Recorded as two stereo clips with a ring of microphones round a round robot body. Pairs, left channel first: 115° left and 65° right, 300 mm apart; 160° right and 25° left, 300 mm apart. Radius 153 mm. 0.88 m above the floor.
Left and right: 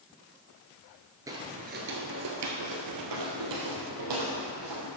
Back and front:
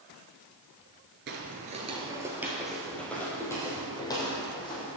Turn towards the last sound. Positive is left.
turn(degrees=-85)